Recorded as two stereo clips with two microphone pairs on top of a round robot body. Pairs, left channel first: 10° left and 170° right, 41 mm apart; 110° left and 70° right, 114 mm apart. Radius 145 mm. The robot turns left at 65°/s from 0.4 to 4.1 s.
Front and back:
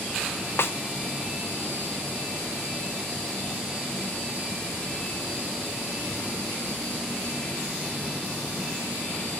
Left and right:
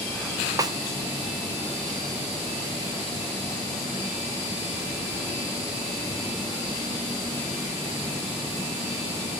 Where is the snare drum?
10° right, 1.0 m; by 0.8 s 20° right, 1.0 m.